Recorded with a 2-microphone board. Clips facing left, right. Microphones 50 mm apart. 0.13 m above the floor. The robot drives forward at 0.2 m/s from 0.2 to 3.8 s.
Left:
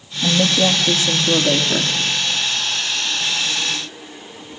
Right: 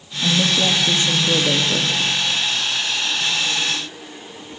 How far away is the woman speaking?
About 3 m.